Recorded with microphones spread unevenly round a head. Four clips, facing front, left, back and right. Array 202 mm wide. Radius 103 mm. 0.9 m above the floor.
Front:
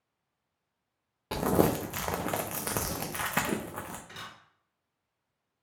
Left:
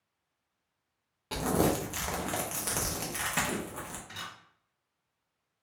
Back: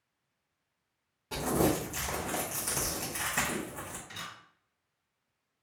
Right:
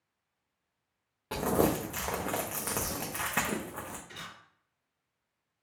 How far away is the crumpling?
About 0.6 m.